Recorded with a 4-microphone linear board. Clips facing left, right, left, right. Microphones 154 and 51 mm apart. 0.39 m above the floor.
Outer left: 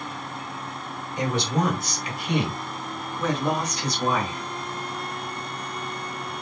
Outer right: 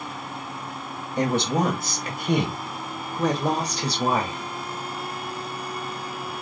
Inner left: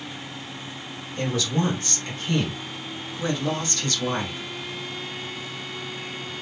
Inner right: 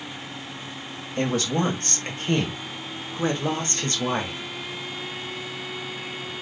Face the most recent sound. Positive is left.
turn(degrees=-25)  # may be behind; listen again after turning